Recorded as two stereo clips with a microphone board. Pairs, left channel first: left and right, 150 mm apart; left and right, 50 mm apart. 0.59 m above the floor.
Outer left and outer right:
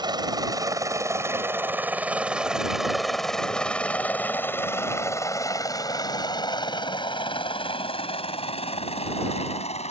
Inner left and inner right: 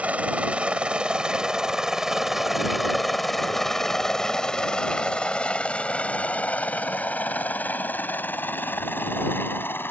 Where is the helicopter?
30° right (ahead or behind); by 9.9 s 45° left (ahead or behind).